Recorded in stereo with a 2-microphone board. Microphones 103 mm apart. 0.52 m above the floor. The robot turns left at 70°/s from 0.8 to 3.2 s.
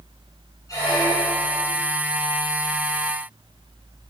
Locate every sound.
0.7 s a squeak: 145° left, 9 m; by 1.7 s 85° left, 9 m